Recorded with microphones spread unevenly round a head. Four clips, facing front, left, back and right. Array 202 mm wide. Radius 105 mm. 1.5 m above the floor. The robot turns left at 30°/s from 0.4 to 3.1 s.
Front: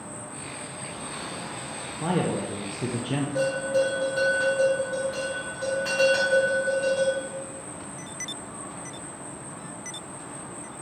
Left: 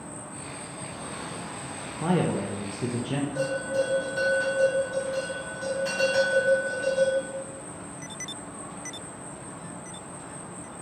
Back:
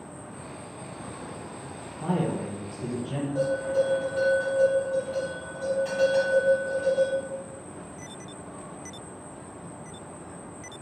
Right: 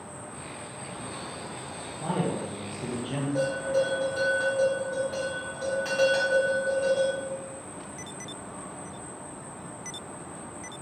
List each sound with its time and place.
0.0 s an insect: 35° left, 1.7 m; by 10.8 s 45° right, 1.7 m
2.0 s a man speaking: 65° left, 0.5 m; by 3.2 s 35° left, 0.5 m
3.4 s a bell: 45° right, 2 m